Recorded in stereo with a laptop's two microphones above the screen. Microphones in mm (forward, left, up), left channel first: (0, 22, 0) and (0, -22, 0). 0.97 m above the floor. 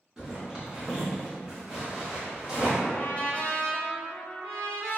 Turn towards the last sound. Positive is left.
turn(degrees=30)  # may be behind; listen again after turning